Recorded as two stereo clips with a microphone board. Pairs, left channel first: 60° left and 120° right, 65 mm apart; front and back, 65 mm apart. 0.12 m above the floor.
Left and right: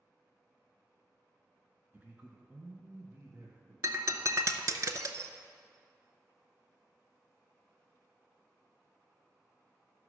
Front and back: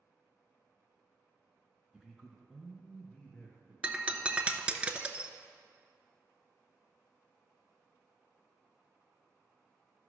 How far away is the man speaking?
About 1.1 m.